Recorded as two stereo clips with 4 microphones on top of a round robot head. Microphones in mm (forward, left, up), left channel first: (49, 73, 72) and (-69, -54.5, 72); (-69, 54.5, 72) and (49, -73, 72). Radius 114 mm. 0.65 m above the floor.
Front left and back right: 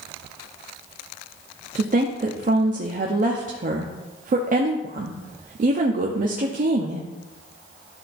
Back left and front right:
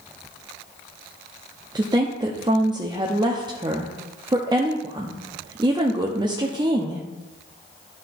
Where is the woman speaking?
105° right, 0.8 m.